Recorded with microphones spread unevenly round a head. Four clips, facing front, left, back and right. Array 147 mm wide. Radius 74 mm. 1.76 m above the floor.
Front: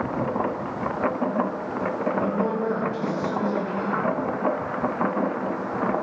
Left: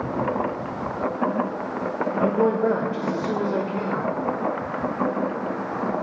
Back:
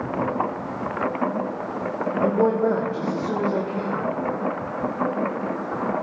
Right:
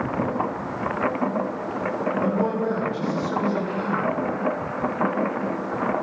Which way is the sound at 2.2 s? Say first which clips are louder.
Left 5 dB, back 9 dB; 145° left.